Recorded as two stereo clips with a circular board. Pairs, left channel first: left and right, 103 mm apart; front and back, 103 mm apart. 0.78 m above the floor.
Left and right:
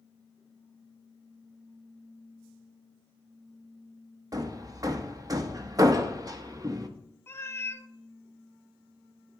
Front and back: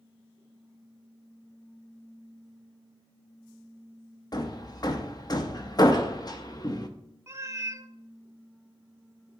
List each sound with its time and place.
4.3 s hammering: 40° right, 0.8 m
7.3 s a cat meowing: 140° left, 0.6 m